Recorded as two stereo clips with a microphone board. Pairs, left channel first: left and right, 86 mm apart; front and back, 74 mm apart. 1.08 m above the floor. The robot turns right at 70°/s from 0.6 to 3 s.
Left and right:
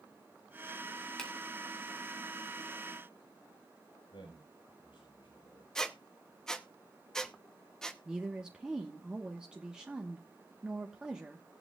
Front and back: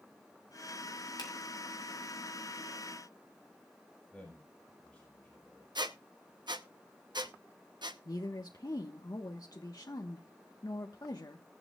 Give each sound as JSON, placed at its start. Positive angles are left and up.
{"t": 1.2, "sound": "a finger snap", "azimuth_deg": 10, "distance_m": 3.5}
{"t": 4.1, "sound": "a man speaking", "azimuth_deg": 85, "distance_m": 5.0}
{"t": 5.8, "sound": "a squeak", "azimuth_deg": 175, "distance_m": 0.9}
{"t": 8.1, "sound": "a woman speaking", "azimuth_deg": -10, "distance_m": 1.2}